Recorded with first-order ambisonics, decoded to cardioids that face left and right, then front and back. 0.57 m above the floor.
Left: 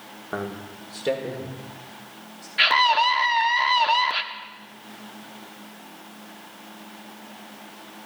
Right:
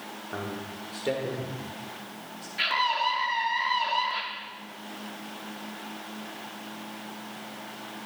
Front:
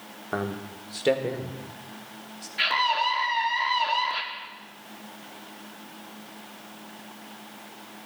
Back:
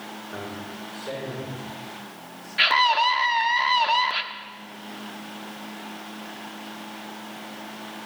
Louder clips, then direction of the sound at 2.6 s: Left 8 dB, back 5 dB; 120° left.